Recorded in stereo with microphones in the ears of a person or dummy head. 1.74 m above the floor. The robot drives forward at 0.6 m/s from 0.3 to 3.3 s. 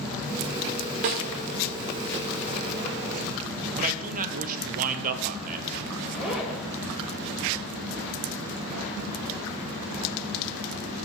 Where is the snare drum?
40° right (ahead or behind), 1.6 m.